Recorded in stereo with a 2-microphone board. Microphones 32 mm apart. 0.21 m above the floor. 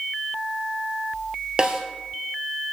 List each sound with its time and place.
1.6 s a snare drum: 30° right (ahead or behind), 1.3 m